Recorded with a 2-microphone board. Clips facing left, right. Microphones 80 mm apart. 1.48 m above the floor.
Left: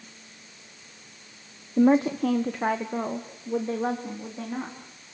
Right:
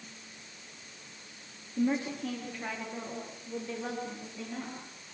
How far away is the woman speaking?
About 0.9 m.